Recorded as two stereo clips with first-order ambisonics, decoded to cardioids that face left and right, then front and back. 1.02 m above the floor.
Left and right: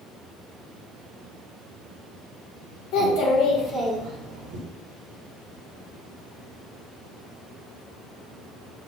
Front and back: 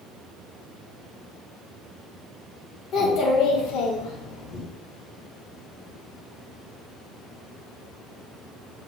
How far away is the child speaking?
About 1.2 m.